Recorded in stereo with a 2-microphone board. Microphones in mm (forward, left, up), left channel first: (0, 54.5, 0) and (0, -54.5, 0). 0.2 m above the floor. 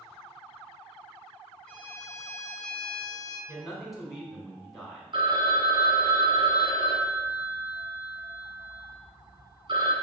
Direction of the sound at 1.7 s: 10° left (ahead or behind).